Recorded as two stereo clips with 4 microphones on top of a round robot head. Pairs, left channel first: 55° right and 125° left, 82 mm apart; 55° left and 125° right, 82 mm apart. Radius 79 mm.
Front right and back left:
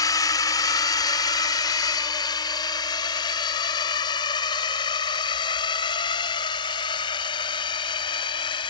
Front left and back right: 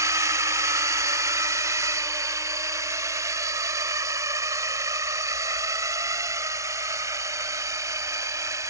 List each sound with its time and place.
0.0 s a drone: 85° right; by 8.7 s 75° right